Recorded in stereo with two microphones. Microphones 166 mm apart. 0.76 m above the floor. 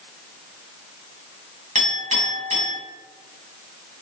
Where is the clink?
50° right (ahead or behind), 4 m.